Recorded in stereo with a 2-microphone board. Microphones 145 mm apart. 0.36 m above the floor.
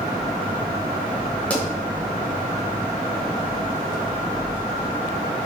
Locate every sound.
1.5 s a pop: 10° left (ahead or behind), 0.9 m